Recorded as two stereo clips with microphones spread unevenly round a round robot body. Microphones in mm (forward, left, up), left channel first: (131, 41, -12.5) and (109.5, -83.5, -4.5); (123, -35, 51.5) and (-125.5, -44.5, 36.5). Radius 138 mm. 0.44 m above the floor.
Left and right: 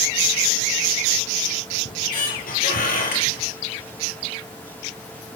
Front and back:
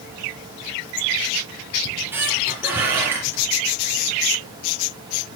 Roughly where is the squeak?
Left.